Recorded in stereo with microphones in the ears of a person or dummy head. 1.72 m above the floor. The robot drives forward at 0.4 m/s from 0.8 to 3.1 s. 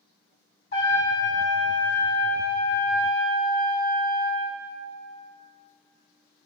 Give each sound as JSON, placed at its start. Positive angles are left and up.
{"t": 0.7, "sound": "a trumpet", "side_deg": 60, "distance_m": 1.9}